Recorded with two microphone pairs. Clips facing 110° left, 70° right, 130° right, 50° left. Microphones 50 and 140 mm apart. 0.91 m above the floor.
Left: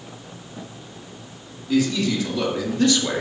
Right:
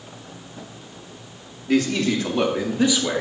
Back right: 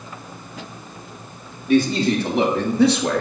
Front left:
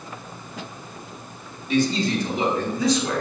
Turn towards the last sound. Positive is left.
turn(degrees=-160)